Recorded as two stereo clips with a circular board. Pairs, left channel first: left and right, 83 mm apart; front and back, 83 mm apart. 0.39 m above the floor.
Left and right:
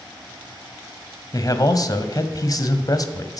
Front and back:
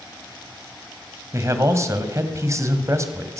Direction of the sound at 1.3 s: 130° left.